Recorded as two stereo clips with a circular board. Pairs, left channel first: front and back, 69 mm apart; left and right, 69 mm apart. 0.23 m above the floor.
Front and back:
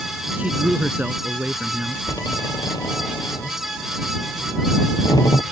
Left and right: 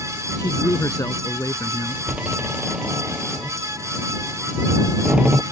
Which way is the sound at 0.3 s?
115° left.